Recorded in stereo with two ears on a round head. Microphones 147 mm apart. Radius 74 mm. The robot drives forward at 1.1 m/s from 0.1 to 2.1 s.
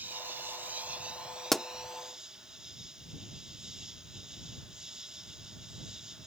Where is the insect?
10° right (ahead or behind); by 6.3 s 5° right (ahead or behind).